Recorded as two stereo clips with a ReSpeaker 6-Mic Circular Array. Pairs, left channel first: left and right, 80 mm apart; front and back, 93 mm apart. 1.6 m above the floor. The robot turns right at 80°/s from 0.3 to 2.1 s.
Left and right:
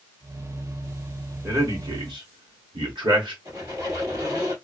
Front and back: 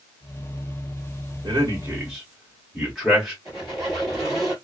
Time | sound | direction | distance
1.4 | a man speaking | 150° right | 1.7 m
3.5 | a squeak | 90° right | 2.5 m